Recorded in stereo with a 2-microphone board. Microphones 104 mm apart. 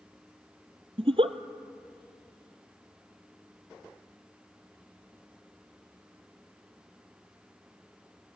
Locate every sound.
1.0 s a giggle: 65° right (ahead or behind), 1.0 m